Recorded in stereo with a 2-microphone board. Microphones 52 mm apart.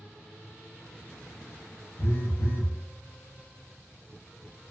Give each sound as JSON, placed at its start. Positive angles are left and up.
{"t": 2.0, "sound": "a phone buzzing", "side_deg": 60, "distance_m": 0.5}